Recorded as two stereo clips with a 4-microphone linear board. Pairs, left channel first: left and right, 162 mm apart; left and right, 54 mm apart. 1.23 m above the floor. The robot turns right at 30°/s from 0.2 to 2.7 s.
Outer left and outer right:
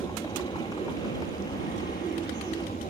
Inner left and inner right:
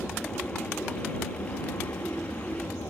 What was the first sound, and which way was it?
An aircraft, 35° left.